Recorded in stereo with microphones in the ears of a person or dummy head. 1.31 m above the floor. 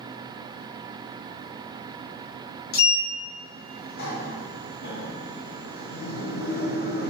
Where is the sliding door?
45° left (ahead or behind), 0.6 m.